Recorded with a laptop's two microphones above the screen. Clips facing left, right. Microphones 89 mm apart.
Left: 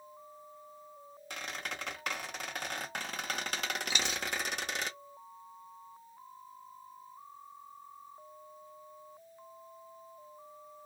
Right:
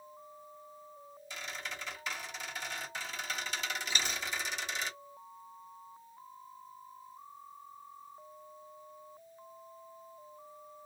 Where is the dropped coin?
50° right (ahead or behind), 0.6 m.